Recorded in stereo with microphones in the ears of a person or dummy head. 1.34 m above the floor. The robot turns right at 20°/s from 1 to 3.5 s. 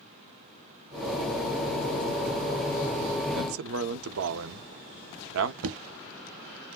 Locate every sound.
3.4 s a man speaking: 85° right, 0.8 m
5.6 s knocking: 80° right, 0.6 m